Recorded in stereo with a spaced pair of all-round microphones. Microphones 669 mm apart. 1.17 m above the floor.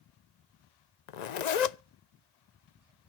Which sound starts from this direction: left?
A zipper, at 1.1 s.